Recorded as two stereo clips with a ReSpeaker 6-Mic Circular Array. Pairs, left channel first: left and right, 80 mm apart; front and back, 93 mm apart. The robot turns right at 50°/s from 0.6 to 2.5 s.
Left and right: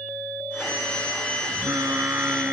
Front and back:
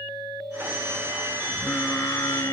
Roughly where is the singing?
Ahead right.